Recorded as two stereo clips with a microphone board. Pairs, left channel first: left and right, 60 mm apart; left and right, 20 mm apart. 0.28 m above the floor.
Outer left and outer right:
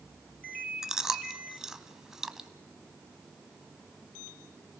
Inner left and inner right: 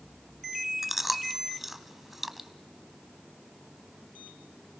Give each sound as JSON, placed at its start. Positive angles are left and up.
{"t": 0.8, "sound": "chewing", "side_deg": -10, "distance_m": 0.9}